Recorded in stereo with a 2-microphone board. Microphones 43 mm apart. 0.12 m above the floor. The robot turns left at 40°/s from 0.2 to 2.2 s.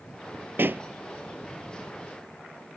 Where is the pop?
60° right (ahead or behind); by 0.9 s 50° right (ahead or behind).